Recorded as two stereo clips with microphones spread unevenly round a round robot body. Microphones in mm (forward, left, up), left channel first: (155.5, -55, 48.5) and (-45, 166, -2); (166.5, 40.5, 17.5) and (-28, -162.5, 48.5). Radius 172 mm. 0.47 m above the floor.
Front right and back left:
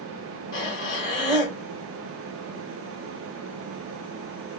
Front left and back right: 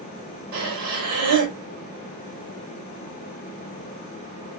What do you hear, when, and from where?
0.5 s breathing: 125° right, 1.7 m